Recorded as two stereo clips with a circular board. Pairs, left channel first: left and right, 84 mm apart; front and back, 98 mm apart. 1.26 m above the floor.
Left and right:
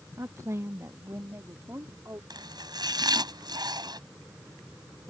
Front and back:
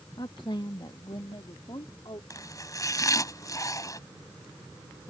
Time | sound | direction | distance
0.2 | a woman speaking | 35° right | ?
2.3 | chopping | 55° right | ?